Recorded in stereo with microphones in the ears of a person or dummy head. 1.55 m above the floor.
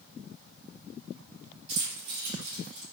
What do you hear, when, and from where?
1.7 s keys jangling: 40° right (ahead or behind), 1.3 m; by 2.8 s 75° right (ahead or behind), 2 m